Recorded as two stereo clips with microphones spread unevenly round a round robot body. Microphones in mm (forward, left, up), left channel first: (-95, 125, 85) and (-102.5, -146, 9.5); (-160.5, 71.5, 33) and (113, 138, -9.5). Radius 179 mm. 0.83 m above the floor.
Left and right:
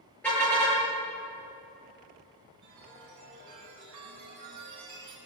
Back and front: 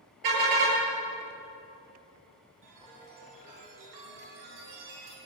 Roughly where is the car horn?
Ahead.